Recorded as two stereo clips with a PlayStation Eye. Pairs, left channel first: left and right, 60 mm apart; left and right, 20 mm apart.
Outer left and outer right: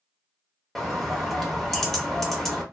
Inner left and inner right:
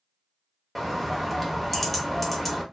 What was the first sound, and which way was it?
A bird, 5° left (ahead or behind).